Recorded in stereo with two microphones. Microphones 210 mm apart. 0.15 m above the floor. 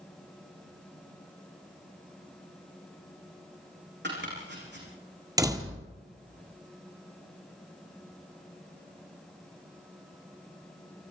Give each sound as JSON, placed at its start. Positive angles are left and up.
{"t": 4.0, "sound": "chopping", "side_deg": -55, "distance_m": 9.0}
{"t": 5.4, "sound": "a door slam", "side_deg": -15, "distance_m": 2.5}